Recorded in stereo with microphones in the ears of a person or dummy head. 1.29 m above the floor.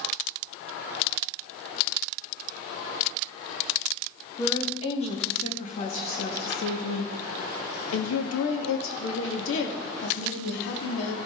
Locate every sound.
4.4 s a woman speaking: 25° left (ahead or behind), 2 m; by 11.2 s 65° left (ahead or behind), 2.5 m